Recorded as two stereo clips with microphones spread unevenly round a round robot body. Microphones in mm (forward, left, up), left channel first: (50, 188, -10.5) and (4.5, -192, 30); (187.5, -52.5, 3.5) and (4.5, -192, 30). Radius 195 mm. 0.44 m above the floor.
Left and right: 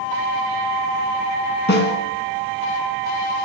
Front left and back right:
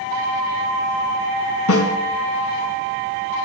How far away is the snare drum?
About 3 m.